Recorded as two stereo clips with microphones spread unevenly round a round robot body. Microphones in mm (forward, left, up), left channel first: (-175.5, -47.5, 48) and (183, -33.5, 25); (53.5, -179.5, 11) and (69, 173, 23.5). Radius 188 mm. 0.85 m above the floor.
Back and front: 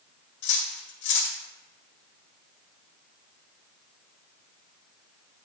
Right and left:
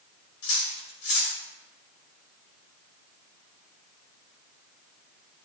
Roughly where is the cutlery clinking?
Behind right.